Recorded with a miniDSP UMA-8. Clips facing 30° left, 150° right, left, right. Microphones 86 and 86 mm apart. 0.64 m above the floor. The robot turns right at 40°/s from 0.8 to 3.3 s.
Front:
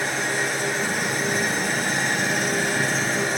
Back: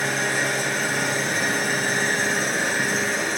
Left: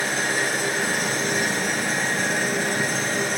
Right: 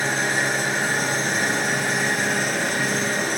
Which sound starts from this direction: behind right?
An engine running, at 0.0 s.